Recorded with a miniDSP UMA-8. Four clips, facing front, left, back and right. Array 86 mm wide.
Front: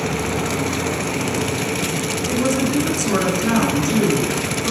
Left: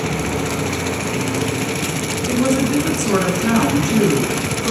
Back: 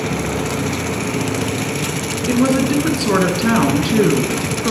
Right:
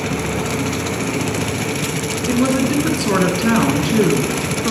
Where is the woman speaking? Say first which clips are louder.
Even, back 5 dB; 155° right, 1.3 m.